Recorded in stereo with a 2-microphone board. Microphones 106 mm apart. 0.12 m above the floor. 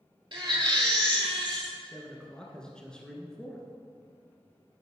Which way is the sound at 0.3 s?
50° right (ahead or behind).